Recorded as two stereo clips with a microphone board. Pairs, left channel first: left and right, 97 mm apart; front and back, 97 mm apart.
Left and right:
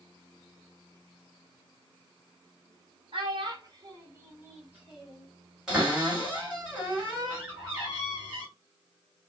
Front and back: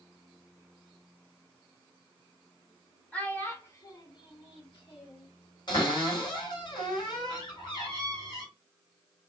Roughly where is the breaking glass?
No breaking glass in this recording.